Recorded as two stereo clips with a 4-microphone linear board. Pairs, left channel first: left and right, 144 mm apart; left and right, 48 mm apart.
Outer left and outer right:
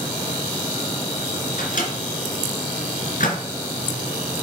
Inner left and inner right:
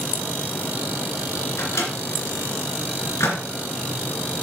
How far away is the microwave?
About 2.5 m.